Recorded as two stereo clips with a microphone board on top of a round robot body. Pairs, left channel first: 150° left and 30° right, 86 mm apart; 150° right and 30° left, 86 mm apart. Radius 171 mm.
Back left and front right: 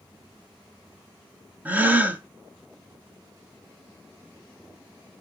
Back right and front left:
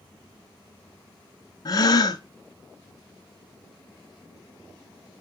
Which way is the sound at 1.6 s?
105° right.